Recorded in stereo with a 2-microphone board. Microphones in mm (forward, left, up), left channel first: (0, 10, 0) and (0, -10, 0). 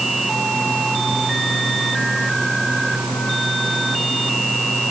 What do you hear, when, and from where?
Only background noise.